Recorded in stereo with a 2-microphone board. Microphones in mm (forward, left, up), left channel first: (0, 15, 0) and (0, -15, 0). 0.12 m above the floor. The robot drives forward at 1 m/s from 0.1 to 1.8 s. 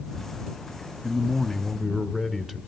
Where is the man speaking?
5° right (ahead or behind), 1.1 m.